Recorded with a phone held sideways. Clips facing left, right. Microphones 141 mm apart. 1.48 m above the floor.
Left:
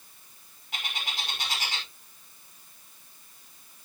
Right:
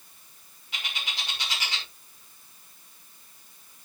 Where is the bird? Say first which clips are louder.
Left 1 dB; 50° left (ahead or behind), 5 m.